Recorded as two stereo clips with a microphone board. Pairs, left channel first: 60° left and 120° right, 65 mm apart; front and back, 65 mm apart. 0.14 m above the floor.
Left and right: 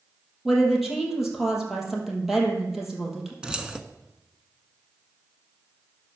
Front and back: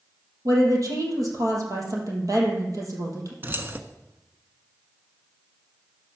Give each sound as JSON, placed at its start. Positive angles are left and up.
{"t": 0.5, "sound": "a woman speaking", "azimuth_deg": 155, "distance_m": 4.0}
{"t": 3.4, "sound": "keys jangling", "azimuth_deg": 175, "distance_m": 1.1}